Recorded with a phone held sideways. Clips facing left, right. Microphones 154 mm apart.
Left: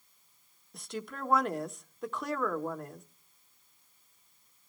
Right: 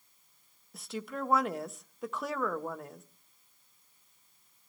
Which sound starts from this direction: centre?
A woman speaking, at 0.7 s.